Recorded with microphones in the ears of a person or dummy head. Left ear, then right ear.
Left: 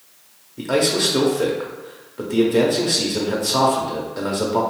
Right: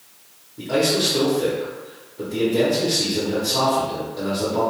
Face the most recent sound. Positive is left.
turn(degrees=55)  # may be behind; listen again after turning